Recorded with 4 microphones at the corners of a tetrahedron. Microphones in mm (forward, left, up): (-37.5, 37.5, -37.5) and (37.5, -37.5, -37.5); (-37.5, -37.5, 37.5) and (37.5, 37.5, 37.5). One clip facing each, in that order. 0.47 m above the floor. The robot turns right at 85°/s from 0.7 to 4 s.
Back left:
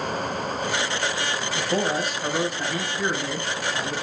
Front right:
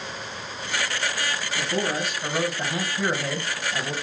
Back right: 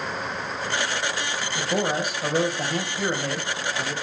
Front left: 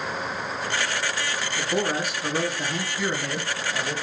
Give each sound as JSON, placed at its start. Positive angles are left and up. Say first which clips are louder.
{"t": 1.6, "sound": "a man speaking", "louder": "back left 2 dB, back right 1 dB", "azimuth_deg": 155, "distance_m": 2.0}